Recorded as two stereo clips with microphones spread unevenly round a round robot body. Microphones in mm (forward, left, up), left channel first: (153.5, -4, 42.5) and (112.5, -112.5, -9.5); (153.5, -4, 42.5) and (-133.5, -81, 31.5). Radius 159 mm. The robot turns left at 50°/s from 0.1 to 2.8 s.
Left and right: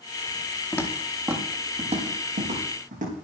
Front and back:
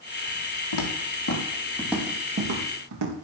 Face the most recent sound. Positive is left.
turn(degrees=-135)